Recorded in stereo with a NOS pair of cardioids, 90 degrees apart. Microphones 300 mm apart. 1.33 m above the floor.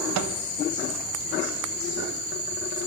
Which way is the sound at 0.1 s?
65° right.